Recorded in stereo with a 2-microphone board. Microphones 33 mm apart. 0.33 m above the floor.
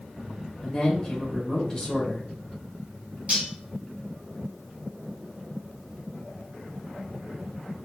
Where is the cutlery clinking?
45° right (ahead or behind), 1.8 m.